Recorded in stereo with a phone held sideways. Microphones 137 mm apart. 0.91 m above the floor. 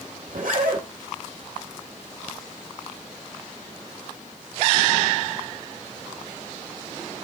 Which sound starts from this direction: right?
A zipper, at 0.3 s.